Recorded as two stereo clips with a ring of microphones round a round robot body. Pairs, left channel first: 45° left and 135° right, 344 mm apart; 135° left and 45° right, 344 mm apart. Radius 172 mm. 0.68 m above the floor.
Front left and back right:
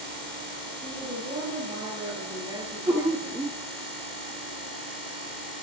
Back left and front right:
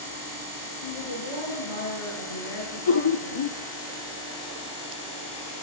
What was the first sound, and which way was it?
A woman speaking, 145° left.